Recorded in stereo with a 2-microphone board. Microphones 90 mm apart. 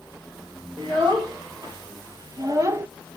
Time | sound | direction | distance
0.8 | a child speaking | 50° right (ahead or behind) | 2 m